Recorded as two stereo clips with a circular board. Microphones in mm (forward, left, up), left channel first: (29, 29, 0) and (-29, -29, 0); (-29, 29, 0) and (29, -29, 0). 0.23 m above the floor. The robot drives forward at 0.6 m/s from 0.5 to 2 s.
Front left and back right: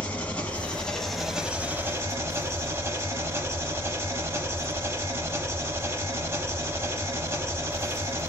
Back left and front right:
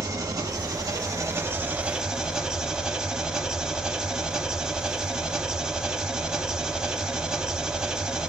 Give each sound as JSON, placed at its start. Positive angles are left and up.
{"t": 0.0, "sound": "an engine running", "azimuth_deg": -25, "distance_m": 1.0}